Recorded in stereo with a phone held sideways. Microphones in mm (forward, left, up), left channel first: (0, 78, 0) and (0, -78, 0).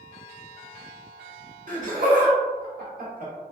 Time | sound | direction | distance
1.7 | laughter | 60° right (ahead or behind) | 1.1 m